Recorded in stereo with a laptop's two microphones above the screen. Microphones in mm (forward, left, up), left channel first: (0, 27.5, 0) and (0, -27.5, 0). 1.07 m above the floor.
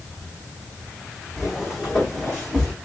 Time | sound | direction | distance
1.4 | footsteps | 5° right (ahead or behind) | 2 m